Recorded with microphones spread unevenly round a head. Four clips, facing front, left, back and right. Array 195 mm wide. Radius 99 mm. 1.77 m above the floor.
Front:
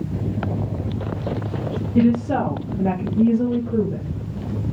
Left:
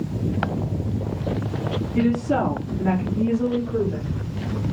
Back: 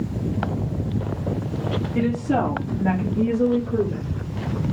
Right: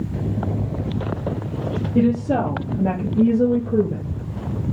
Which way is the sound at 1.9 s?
55° right.